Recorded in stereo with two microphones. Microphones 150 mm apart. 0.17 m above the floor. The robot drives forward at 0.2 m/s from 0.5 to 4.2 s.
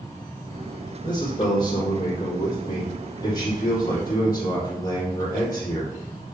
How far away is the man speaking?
About 5 m.